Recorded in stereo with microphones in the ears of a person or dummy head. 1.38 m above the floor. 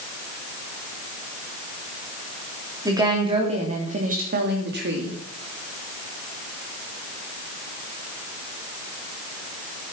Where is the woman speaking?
15° right (ahead or behind), 3.5 m; by 5.2 s 60° right (ahead or behind), 3 m.